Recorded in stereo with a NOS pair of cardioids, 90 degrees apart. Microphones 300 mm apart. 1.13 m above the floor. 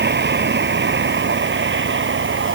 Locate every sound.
0.0 s a vehicle: 35° right; by 2.5 s 40° right